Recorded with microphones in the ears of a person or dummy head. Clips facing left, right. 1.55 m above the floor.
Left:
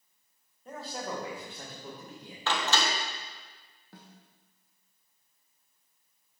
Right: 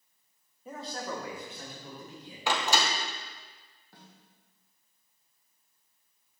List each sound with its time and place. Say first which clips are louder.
0.7 s a man speaking: even; 5° right (ahead or behind), 1.2 m; by 2.4 s 55° left (ahead or behind), 2.5 m
2.5 s a door slam: right 1 dB; 15° right (ahead or behind), 0.8 m
3.9 s a snare drum: left 3 dB; 65° left (ahead or behind), 1.1 m